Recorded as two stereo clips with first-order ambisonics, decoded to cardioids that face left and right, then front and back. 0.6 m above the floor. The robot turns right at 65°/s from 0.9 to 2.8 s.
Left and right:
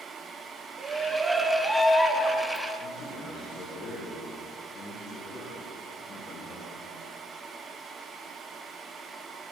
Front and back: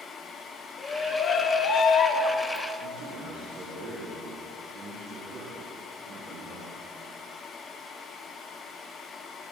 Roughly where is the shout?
Ahead right.